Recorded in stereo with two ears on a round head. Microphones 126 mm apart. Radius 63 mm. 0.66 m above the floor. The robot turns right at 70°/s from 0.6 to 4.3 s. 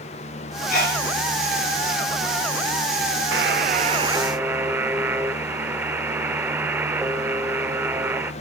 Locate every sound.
0.7 s a sneeze: 60° left (ahead or behind), 5 m; by 1.0 s 75° left (ahead or behind), 5 m
3.3 s a buzzer: 80° right, 0.7 m; by 8.3 s 15° right, 0.7 m